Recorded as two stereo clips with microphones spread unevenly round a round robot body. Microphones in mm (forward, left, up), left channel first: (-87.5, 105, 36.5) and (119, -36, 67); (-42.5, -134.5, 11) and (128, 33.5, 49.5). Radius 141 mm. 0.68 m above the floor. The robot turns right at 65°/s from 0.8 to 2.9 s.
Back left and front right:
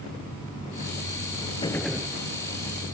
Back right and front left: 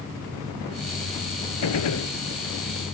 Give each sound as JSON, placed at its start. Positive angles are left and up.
{"t": 1.6, "sound": "a gunshot", "azimuth_deg": -140}